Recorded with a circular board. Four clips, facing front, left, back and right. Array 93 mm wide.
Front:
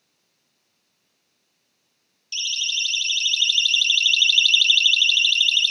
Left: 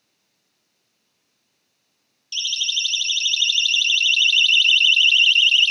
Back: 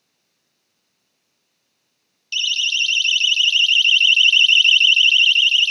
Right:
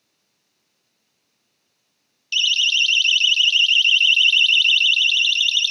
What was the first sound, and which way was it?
A siren, 120° right.